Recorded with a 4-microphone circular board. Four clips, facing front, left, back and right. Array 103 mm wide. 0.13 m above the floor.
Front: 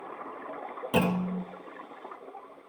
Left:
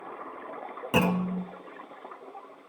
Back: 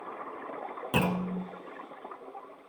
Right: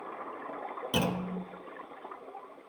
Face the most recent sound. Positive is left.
turn(degrees=90)